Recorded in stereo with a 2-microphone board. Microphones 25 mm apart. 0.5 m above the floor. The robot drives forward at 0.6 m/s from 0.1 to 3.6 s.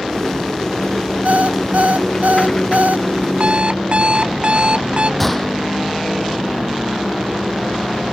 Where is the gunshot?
5° left (ahead or behind).